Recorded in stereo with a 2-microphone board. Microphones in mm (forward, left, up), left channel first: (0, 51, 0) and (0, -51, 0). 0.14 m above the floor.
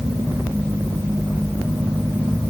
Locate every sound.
Only background noise.